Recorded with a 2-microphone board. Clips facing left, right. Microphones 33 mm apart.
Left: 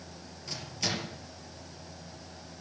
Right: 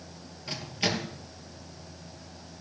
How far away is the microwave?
About 3 m.